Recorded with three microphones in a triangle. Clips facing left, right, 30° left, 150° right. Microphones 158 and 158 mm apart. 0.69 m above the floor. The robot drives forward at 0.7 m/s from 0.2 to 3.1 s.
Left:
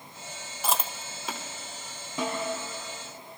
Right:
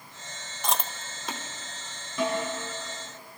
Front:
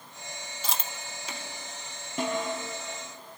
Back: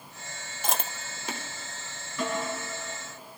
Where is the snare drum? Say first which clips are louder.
Right 3 dB, front 1 dB; 25° left, 8 m.